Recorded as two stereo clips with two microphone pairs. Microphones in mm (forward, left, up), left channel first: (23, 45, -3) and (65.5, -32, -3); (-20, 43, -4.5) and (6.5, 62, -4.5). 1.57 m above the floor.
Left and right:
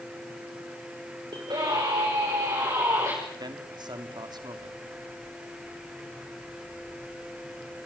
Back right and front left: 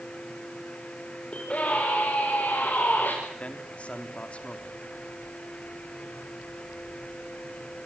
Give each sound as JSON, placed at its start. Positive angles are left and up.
{"t": 1.3, "sound": "a scream", "azimuth_deg": -90, "distance_m": 6.0}
{"t": 3.4, "sound": "a man speaking", "azimuth_deg": -95, "distance_m": 3.0}